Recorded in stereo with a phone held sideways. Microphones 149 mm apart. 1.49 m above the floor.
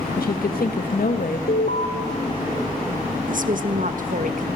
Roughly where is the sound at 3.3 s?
Right.